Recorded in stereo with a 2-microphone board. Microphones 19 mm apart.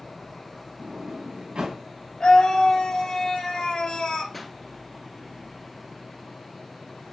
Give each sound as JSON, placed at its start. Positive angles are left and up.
{"t": 0.8, "sound": "a sliding door", "side_deg": -85, "distance_m": 4.0}
{"t": 2.2, "sound": "a scream", "side_deg": 50, "distance_m": 2.5}
{"t": 4.3, "sound": "a pop", "side_deg": 5, "distance_m": 1.4}